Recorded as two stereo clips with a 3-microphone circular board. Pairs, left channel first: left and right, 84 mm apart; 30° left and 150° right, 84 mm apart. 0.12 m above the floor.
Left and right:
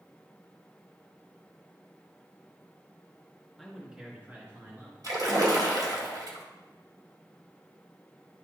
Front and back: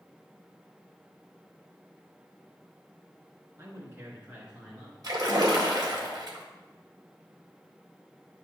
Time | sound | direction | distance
3.6 | a man speaking | 175° left | 1.8 m
5.0 | a splash | 120° right | 1.9 m